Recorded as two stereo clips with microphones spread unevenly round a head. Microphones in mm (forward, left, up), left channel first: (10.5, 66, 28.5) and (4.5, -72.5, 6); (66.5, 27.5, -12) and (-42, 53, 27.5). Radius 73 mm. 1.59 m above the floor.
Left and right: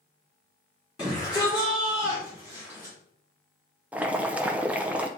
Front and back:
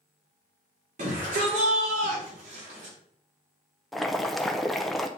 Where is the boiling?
175° left, 0.5 m.